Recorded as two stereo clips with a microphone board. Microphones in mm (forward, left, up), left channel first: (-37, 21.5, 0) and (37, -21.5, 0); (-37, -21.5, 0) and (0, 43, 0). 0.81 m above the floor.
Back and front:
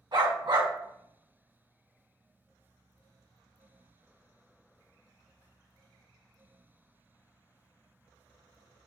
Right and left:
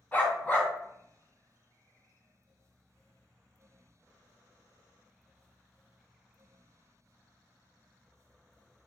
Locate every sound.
0.1 s a dog barking: 50° right, 1.6 m